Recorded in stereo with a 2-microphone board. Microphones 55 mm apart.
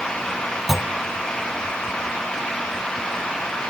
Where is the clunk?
Centre (ahead or behind), 0.8 m.